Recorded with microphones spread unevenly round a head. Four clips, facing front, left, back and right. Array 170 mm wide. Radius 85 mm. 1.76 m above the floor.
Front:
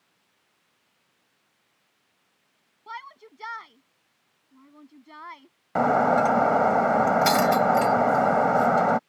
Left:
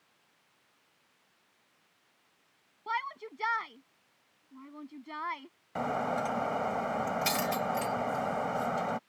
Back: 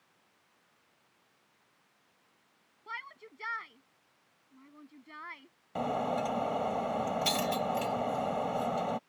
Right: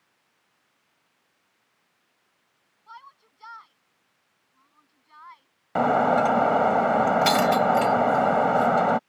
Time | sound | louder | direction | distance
2.9 | a shout | left 12 dB, front 5 dB | 90° left | ?
5.8 | breaking glass | right 12 dB, front 12 dB | 50° right | ?